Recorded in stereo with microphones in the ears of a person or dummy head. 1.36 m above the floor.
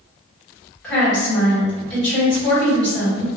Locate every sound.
0.8 s a woman speaking: 5° left (ahead or behind), 1.6 m